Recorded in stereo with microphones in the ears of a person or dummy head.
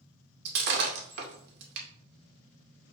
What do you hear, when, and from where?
0.5 s breaking glass: 70° right (ahead or behind), 2 m